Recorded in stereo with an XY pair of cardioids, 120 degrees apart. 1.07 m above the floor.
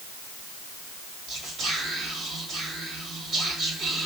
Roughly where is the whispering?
Ahead right.